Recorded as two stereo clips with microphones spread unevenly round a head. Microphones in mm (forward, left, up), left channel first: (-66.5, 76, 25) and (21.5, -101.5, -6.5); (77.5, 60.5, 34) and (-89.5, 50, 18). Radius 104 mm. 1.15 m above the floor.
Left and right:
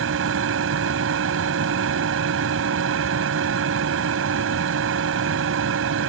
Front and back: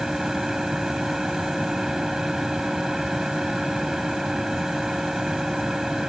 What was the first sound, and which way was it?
A machine running, 85° right.